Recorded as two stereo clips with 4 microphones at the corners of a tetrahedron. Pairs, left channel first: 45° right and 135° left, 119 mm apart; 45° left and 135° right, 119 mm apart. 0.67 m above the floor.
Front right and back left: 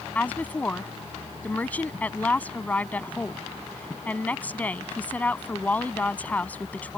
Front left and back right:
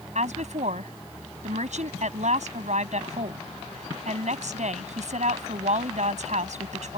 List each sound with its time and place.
0.1 s a woman speaking: 120° right